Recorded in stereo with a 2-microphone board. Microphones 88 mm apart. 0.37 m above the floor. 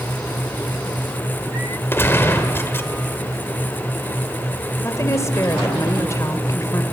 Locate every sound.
1.9 s a gunshot: 25° left (ahead or behind), 1.7 m
4.8 s a woman speaking: 35° left (ahead or behind), 1.7 m